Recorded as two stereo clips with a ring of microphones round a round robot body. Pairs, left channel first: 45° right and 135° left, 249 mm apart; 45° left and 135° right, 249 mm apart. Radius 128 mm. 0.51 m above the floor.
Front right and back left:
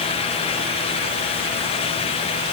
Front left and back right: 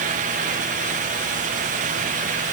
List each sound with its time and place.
Only background noise.